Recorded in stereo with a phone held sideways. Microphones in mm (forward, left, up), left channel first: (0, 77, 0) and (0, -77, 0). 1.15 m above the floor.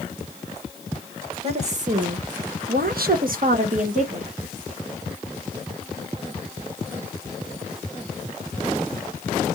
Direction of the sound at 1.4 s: 40° right (ahead or behind).